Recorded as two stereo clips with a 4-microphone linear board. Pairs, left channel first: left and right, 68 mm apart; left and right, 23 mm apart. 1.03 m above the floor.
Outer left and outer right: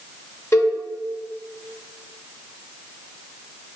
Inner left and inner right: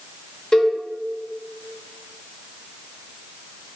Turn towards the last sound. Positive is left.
turn(degrees=40)  # may be behind; listen again after turning